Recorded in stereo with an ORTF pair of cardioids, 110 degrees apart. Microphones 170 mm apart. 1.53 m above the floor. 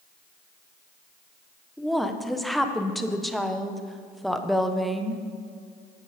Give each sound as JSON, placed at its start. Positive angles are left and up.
{"t": 1.8, "sound": "a woman speaking", "azimuth_deg": 0, "distance_m": 0.9}